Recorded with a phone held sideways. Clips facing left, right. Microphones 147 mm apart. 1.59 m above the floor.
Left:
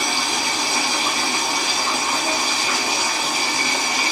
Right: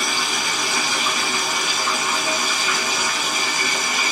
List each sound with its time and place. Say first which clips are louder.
0.0 s running water: left 2 dB; 35° left (ahead or behind), 1.4 m